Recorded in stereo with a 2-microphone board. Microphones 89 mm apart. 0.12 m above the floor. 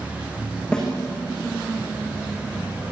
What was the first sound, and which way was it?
A snare drum, 5° left (ahead or behind).